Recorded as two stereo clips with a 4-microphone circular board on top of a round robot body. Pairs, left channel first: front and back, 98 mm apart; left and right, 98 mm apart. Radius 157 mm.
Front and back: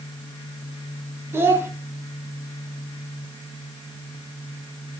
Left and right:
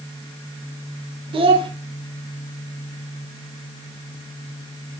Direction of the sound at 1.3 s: 115° right.